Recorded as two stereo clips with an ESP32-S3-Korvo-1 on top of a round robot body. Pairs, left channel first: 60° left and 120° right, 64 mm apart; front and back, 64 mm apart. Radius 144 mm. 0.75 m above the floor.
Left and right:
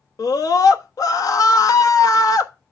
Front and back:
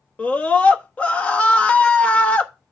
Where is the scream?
70° left, 1.5 m.